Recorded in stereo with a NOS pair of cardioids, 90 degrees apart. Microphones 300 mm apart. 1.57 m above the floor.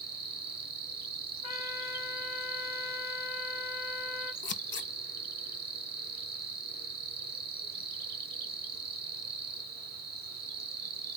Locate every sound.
0.0 s an insect: 35° right, 0.8 m
1.4 s a trumpet: 70° left, 1.0 m
4.4 s scissors: 40° left, 0.5 m